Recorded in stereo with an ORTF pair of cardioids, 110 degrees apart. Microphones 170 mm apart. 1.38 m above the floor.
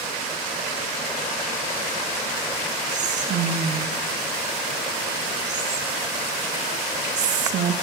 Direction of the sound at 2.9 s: 50° right.